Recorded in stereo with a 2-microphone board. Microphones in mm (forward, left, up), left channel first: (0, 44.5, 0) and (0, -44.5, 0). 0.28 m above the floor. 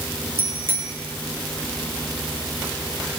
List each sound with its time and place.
0.4 s a bicycle bell: 25° right (ahead or behind), 5.5 m